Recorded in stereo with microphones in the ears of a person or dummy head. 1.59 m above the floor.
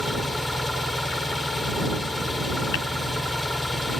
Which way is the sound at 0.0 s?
10° left (ahead or behind).